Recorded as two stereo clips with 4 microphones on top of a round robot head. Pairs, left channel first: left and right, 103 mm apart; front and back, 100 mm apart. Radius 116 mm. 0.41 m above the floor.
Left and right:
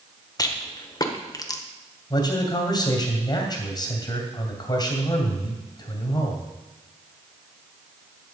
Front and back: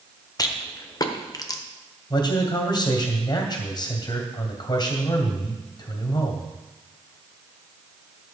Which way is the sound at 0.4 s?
45° left.